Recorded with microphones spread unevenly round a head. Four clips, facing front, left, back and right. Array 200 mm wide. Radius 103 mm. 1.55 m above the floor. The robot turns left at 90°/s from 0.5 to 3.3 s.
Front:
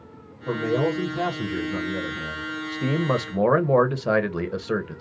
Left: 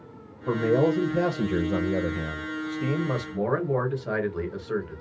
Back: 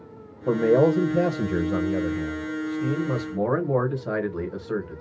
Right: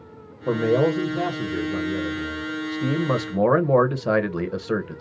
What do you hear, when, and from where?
0.5 s a man speaking: 135° right, 0.9 m; by 5.0 s 25° right, 0.9 m